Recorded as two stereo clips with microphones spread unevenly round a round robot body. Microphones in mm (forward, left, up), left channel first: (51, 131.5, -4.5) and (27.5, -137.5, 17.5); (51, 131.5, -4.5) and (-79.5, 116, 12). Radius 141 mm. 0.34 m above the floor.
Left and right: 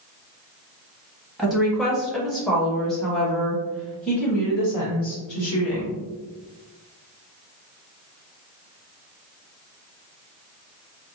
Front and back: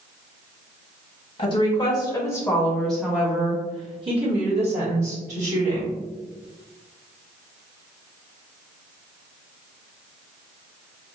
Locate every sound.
1.4 s a woman speaking: straight ahead, 1.3 m; by 6.0 s 170° left, 1.9 m